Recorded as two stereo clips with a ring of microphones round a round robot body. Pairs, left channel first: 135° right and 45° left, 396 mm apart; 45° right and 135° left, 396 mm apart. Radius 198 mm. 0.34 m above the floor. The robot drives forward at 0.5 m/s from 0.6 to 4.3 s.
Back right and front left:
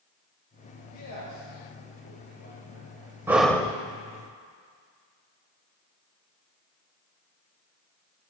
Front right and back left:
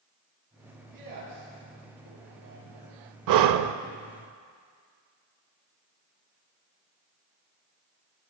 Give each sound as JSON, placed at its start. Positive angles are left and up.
{"t": 0.9, "sound": "a man speaking", "azimuth_deg": 175, "distance_m": 7.0}
{"t": 3.3, "sound": "breathing", "azimuth_deg": 125, "distance_m": 0.5}